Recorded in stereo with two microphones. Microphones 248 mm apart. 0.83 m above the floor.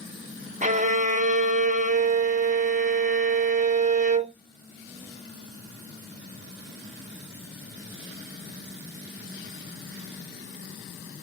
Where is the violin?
30° right (ahead or behind), 0.5 m.